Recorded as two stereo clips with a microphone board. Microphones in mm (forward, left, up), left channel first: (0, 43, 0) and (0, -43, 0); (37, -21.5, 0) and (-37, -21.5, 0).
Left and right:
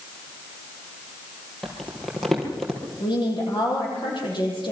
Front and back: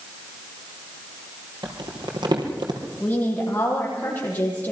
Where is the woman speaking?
65° left, 8 m.